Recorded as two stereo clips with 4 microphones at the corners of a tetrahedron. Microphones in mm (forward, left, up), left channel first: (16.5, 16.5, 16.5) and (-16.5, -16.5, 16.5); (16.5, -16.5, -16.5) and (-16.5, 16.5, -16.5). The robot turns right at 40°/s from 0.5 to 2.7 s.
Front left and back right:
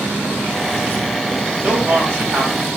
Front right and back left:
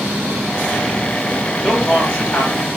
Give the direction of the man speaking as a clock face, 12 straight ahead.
4 o'clock.